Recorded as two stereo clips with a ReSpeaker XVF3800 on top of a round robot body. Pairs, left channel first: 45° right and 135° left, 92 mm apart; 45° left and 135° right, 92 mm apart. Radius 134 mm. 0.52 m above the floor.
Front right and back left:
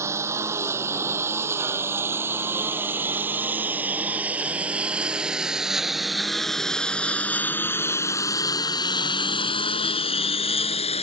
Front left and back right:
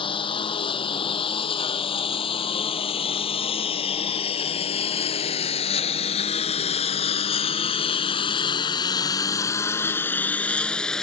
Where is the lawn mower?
75° left; by 11.0 s 40° right.